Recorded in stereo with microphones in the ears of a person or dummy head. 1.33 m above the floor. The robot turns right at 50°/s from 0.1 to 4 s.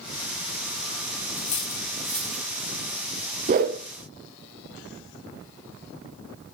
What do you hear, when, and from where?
1.4 s cutlery clinking: 30° left (ahead or behind), 0.8 m; by 2.5 s 5° right (ahead or behind), 0.8 m
3.5 s a whoosh: 30° right (ahead or behind), 0.7 m; by 3.8 s 35° right (ahead or behind), 0.7 m